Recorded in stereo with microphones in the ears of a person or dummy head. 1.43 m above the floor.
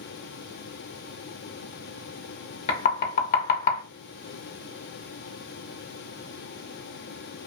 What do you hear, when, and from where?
2.7 s knocking: 45° left (ahead or behind), 0.6 m